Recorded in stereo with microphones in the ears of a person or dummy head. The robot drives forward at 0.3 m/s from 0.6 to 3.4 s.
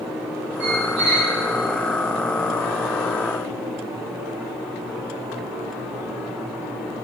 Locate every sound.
0.6 s a squeak: 60° right (ahead or behind), 1.7 m